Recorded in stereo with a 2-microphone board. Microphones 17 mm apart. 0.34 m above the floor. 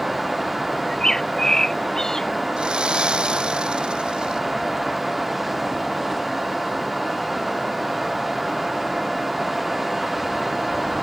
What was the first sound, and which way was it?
A bird, 30° left (ahead or behind).